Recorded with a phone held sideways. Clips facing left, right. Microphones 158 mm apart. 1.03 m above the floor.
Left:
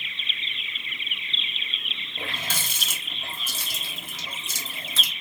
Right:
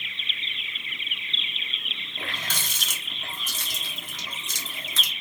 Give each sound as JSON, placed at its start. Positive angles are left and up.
{"t": 2.2, "sound": "a running tap", "side_deg": 10, "distance_m": 1.2}